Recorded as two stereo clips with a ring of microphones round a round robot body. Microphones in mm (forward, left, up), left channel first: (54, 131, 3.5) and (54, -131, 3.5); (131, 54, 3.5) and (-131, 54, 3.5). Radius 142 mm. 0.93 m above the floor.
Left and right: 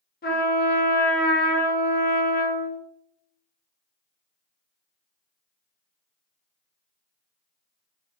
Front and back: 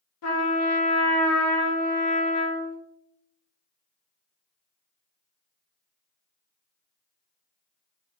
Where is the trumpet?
35° left, 0.9 m.